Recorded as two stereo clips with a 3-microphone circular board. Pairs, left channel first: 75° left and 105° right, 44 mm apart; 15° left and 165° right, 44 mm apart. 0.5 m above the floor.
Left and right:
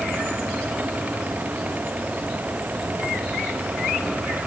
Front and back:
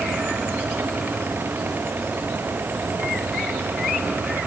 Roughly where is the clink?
I don't hear a clink.